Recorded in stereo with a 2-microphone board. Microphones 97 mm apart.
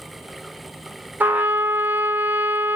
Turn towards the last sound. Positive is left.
turn(degrees=-20)  # may be behind; listen again after turning